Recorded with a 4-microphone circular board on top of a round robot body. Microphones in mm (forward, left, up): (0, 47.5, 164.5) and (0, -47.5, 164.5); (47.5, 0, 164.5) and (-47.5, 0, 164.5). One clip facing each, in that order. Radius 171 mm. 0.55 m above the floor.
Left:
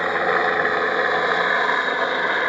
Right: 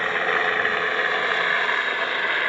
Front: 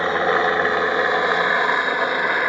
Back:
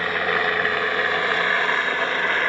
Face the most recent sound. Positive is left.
turn(degrees=60)